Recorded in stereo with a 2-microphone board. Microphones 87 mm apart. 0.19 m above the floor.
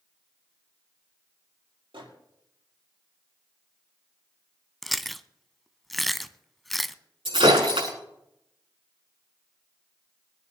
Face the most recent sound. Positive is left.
turn(degrees=-75)  # may be behind; listen again after turning